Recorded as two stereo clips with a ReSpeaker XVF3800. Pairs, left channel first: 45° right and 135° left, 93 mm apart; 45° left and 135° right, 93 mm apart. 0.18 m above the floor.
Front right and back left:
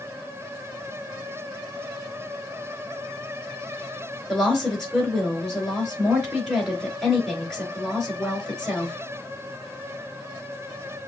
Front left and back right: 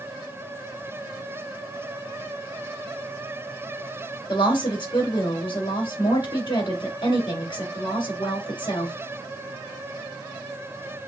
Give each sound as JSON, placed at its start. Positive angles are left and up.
{"t": 4.3, "sound": "a woman speaking", "azimuth_deg": 40, "distance_m": 3.0}